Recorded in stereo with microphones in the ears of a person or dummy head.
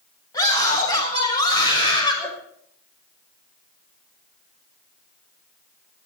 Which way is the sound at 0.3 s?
25° left (ahead or behind).